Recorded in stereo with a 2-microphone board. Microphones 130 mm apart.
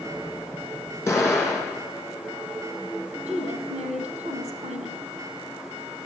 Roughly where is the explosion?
Left.